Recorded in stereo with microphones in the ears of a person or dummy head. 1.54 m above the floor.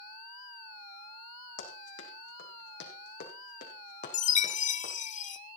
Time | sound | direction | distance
1.6 | running footsteps | 70° left (ahead or behind) | 4.5 m
4.1 | a chime | 40° left (ahead or behind) | 0.6 m